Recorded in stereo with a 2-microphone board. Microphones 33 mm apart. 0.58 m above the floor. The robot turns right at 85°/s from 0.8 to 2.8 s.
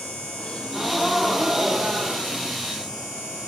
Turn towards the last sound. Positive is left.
turn(degrees=-40)